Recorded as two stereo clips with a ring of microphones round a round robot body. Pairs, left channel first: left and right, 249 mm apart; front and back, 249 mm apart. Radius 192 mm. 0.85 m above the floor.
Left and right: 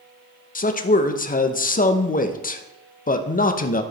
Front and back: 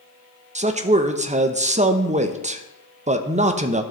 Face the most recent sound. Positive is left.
turn(degrees=130)